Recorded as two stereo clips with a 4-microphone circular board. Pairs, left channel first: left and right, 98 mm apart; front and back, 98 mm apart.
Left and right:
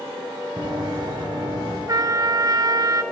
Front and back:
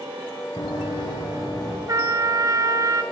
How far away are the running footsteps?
About 2 m.